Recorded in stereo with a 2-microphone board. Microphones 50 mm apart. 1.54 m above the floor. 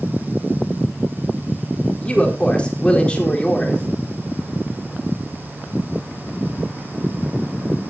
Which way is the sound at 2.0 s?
20° left (ahead or behind).